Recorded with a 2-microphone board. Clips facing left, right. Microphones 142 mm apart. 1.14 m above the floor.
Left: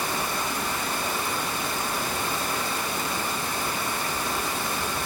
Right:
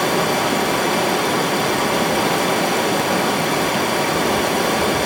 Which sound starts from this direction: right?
Running water, at 0.0 s.